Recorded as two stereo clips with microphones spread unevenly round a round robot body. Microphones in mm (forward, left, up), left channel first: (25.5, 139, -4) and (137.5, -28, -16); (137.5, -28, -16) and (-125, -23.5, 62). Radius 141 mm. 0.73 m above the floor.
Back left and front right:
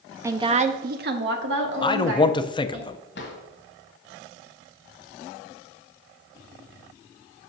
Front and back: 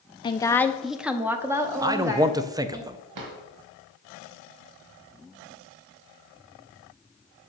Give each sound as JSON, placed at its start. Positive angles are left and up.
{"t": 0.2, "sound": "a woman speaking", "azimuth_deg": 5, "distance_m": 0.6}
{"t": 1.8, "sound": "a man speaking", "azimuth_deg": 80, "distance_m": 0.5}
{"t": 3.1, "sound": "a drawer", "azimuth_deg": 175, "distance_m": 1.6}